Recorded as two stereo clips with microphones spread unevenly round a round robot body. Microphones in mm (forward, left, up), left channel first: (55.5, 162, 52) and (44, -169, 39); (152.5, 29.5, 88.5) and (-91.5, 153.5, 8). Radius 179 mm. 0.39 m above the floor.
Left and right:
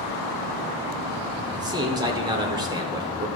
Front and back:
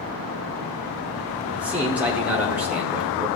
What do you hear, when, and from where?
1.5 s a man speaking: 155° right, 0.9 m